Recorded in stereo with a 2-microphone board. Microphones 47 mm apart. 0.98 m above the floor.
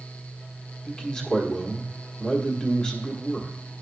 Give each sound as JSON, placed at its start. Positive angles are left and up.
{"t": 0.8, "sound": "a man speaking", "side_deg": 20, "distance_m": 1.3}